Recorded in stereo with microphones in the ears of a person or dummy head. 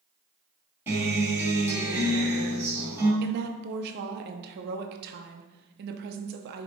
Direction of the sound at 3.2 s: 55° right (ahead or behind).